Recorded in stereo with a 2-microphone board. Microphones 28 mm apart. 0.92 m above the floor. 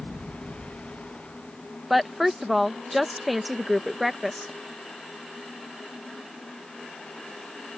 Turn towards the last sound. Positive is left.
turn(degrees=-5)  # may be behind; listen again after turning